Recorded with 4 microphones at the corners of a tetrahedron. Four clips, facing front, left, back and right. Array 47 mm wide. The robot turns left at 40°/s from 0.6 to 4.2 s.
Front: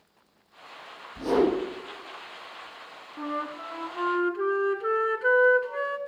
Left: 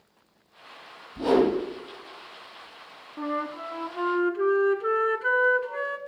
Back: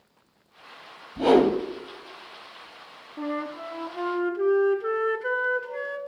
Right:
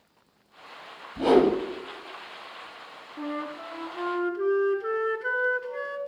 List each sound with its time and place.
1.2 s a whoosh: 175° right, 3 m; by 1.6 s 170° left, 3 m
3.2 s a flute: 85° left, 0.8 m; by 6.0 s 45° left, 0.8 m